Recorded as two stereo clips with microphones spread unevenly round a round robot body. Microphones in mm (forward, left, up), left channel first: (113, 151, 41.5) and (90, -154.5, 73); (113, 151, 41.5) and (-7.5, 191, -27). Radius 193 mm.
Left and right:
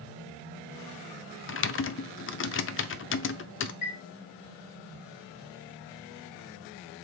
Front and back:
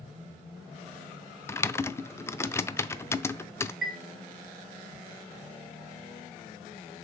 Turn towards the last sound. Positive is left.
turn(degrees=80)